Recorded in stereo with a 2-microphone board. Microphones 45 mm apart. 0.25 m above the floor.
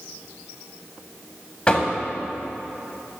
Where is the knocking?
25° left (ahead or behind), 0.9 m.